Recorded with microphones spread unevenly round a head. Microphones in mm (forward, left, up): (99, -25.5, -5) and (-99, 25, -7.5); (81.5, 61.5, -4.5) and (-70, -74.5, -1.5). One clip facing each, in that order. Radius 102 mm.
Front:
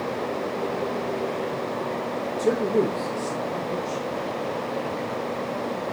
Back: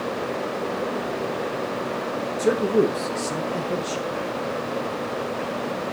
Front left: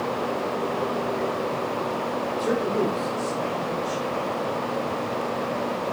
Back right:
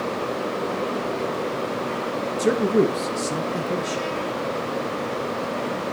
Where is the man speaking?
115° right, 1.2 m; by 4.0 s 160° right, 0.9 m.